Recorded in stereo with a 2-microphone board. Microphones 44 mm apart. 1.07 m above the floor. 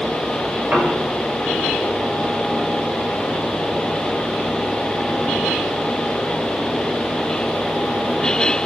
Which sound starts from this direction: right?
A piano, at 0.7 s.